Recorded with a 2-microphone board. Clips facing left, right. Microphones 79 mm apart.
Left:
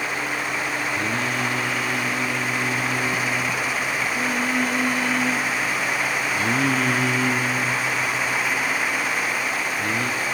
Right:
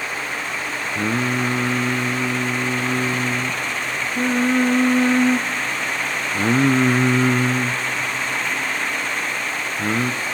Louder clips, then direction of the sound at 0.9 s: Right 3 dB; 35° right (ahead or behind).